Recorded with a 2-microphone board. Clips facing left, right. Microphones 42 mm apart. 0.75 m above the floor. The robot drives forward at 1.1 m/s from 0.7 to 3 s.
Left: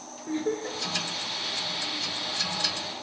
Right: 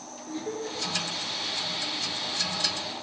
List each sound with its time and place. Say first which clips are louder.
0.3 s laughter: left 4 dB; 40° left (ahead or behind), 4 m; by 0.8 s 45° left (ahead or behind), 4 m